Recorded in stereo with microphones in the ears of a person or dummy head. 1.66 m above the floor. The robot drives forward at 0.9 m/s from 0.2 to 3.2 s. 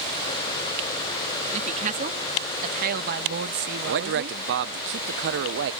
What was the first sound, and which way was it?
A woman speaking, 35° right (ahead or behind).